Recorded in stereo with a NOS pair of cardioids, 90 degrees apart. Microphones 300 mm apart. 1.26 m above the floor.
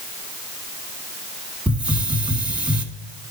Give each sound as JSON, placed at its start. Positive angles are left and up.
{"t": 1.7, "sound": "a hiss", "azimuth_deg": -5, "distance_m": 1.4}